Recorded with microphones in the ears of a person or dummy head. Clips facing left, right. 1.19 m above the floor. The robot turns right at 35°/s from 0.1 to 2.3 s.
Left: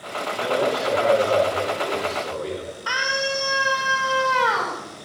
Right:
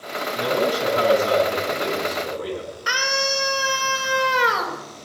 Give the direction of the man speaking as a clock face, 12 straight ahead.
3 o'clock.